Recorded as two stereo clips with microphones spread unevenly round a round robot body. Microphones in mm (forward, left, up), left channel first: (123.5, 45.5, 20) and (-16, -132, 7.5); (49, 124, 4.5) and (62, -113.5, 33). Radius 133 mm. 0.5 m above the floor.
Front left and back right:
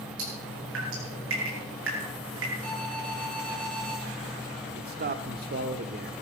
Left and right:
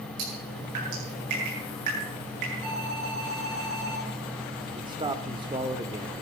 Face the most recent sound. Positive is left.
turn(degrees=-160)